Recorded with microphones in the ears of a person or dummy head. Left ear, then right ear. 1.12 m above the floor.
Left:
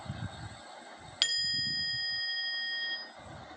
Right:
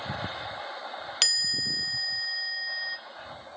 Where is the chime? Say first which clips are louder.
Right 5 dB; 30° right (ahead or behind), 1.1 m.